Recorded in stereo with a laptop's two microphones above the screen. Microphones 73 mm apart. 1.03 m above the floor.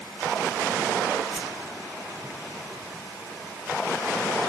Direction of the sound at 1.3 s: 5° right (ahead or behind).